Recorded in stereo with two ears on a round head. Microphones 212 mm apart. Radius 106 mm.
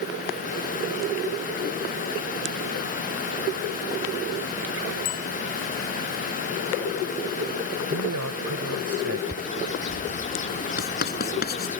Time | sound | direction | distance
5.0 | a bicycle bell | 65° left (ahead or behind) | ?
7.9 | a man speaking | 65° right (ahead or behind) | ?
9.3 | a bird | 30° left (ahead or behind) | ?
10.8 | writing | 40° left (ahead or behind) | ?